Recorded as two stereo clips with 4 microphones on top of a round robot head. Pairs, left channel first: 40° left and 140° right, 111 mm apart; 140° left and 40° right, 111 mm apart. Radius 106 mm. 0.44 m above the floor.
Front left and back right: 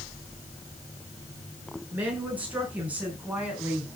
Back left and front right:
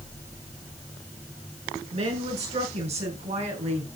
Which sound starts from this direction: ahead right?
A woman speaking, at 1.9 s.